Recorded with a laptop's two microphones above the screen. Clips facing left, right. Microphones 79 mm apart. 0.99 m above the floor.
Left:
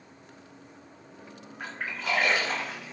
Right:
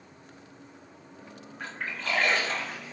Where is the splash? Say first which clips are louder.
Left 1 dB; 10° left (ahead or behind), 0.7 m.